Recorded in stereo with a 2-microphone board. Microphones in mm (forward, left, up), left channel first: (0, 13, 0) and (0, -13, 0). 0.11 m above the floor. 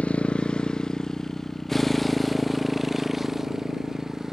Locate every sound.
0.0 s a motorcycle: 50° left (ahead or behind); by 4.3 s 20° right (ahead or behind)